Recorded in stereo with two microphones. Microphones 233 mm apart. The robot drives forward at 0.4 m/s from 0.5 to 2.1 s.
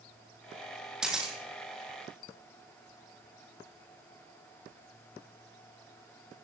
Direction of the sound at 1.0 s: 5° right (ahead or behind).